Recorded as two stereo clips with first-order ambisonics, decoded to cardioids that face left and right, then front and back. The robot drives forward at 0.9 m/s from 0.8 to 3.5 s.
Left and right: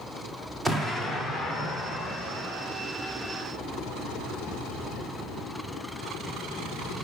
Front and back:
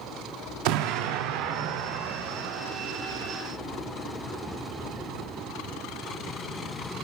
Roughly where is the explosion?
Behind.